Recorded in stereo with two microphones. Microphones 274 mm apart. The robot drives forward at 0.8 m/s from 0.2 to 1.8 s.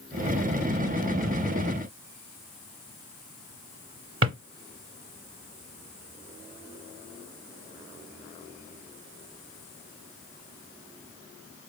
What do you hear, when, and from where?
4.2 s a drawer: 50° right (ahead or behind), 0.8 m